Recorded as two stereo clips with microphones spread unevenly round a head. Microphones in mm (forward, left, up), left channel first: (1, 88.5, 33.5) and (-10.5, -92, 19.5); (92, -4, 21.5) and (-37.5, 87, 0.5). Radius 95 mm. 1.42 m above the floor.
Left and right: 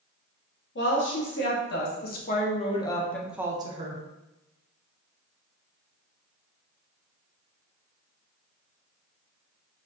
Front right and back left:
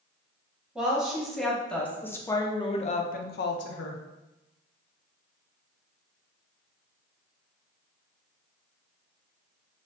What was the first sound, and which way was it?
A woman speaking, 60° left.